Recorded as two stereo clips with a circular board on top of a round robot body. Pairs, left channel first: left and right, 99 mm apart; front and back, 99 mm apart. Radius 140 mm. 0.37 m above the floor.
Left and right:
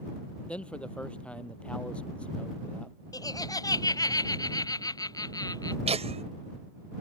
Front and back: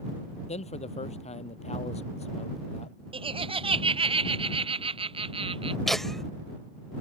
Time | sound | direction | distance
0.5 | a man speaking | 10° left | ?
3.1 | laughter | 145° left | ?
5.9 | laughter | 85° right | ?